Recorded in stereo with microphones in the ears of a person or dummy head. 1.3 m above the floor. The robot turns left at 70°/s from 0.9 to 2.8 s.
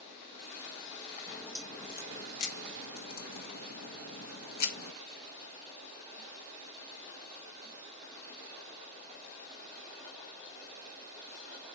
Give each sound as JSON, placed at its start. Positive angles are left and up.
{"t": 1.3, "sound": "a crack", "azimuth_deg": 180, "distance_m": 1.3}